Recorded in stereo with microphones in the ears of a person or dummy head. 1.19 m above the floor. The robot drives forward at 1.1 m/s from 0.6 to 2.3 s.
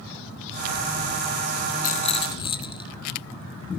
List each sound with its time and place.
1.8 s a rattle: 40° left (ahead or behind), 0.6 m; by 2.9 s 25° left (ahead or behind), 0.9 m